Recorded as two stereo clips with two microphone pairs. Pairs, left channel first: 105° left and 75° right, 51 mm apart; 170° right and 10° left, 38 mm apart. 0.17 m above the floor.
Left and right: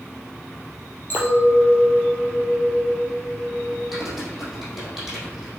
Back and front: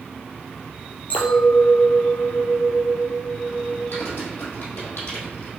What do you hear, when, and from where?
1.1 s a clink: 150° left, 3 m
3.9 s typing on a keyboard: 160° right, 4 m